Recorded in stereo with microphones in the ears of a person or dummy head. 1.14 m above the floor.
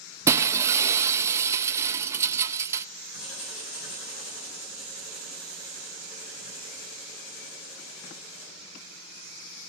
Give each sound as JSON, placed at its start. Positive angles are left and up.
{"t": 0.3, "sound": "breaking glass", "side_deg": -15, "distance_m": 0.5}
{"t": 3.1, "sound": "writing", "side_deg": 85, "distance_m": 8.5}